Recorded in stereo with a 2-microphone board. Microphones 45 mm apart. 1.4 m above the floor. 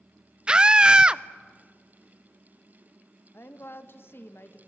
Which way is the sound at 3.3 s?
60° left (ahead or behind).